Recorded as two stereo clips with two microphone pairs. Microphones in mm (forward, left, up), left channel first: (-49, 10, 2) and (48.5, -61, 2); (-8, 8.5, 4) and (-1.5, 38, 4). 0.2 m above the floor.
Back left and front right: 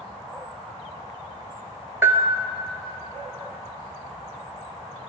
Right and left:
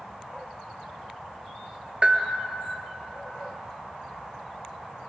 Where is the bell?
30° left, 0.6 m.